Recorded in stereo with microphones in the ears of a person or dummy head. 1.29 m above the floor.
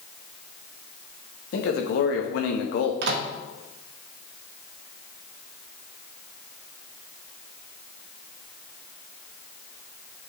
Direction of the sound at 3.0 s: 70° right (ahead or behind).